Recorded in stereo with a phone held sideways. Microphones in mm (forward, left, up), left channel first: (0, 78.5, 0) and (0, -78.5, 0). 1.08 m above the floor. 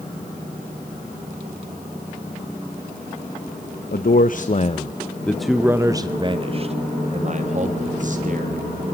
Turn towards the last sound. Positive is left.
turn(degrees=-55)  # may be behind; listen again after turning